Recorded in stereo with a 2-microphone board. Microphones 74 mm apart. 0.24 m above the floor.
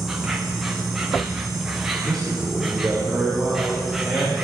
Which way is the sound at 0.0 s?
5° right (ahead or behind).